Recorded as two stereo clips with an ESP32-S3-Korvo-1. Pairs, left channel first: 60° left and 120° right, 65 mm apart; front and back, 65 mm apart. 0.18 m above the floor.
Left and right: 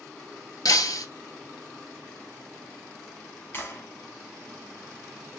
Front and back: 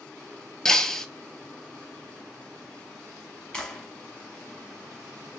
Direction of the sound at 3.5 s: 65° left.